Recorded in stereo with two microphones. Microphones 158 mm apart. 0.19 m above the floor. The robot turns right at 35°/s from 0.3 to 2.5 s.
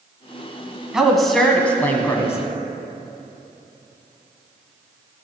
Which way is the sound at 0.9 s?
5° right (ahead or behind).